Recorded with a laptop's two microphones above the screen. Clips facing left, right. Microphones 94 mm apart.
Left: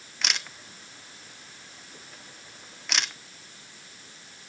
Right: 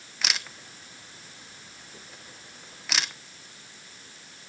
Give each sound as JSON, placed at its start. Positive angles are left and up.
{"t": 0.2, "sound": "a camera shutter", "side_deg": 0, "distance_m": 0.9}